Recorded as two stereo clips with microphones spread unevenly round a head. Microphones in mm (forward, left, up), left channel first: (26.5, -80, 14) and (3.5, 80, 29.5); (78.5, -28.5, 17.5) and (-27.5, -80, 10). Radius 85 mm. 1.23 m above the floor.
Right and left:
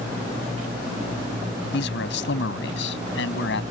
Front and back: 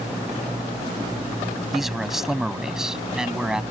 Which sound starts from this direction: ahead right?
A man speaking, at 1.7 s.